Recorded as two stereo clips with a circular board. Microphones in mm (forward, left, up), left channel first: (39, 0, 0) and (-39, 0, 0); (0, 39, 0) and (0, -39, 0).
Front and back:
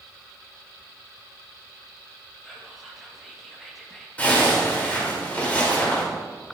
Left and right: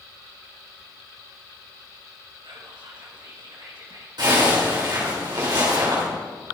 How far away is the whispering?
About 2 m.